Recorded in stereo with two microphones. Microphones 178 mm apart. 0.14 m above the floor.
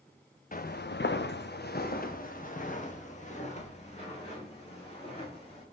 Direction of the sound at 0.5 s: 50° left (ahead or behind).